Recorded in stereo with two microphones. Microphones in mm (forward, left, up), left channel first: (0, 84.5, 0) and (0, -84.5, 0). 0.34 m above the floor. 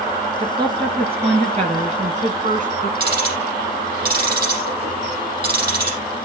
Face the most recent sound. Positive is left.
turn(degrees=-65)  # may be behind; listen again after turning